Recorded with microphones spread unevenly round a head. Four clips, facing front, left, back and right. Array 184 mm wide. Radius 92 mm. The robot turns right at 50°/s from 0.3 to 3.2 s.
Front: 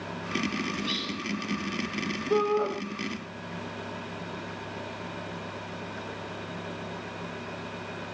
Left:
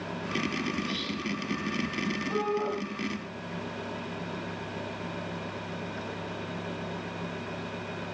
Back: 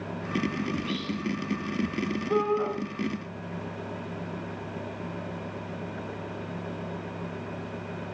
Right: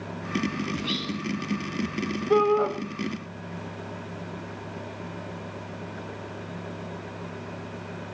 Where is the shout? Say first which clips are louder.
Right 10 dB, front 1 dB; 80° right, 6.5 m; by 2.7 s 60° right, 6.5 m.